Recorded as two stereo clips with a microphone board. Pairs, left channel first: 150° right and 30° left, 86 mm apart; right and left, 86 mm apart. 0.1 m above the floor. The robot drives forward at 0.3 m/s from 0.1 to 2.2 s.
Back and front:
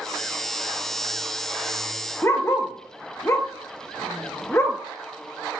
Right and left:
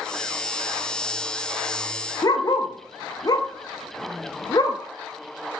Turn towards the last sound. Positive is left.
turn(degrees=-100)